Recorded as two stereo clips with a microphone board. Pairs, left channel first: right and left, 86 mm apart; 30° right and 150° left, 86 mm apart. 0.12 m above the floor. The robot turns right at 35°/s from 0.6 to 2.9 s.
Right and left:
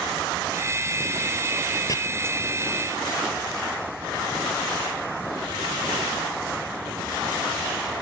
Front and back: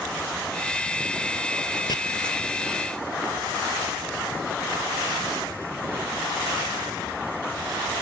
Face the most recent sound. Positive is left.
turn(degrees=-15)